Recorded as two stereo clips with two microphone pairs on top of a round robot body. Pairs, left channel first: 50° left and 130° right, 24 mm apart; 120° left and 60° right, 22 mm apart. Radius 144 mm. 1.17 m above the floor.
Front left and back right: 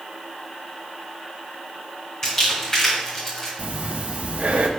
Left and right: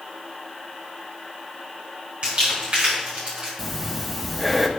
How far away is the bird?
No bird in this recording.